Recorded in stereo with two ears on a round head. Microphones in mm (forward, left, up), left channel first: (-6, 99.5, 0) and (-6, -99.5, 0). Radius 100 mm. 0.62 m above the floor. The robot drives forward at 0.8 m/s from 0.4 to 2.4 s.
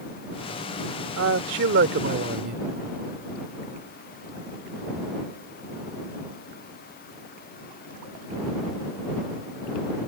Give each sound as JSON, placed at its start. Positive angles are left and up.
{"t": 1.2, "sound": "a man speaking", "side_deg": -65}